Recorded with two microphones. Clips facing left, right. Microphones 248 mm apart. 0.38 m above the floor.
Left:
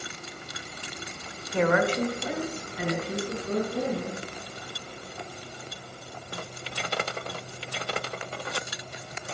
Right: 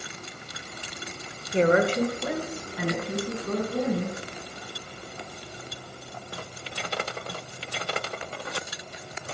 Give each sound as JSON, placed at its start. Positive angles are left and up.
{"t": 1.5, "sound": "a woman speaking", "side_deg": -25, "distance_m": 0.9}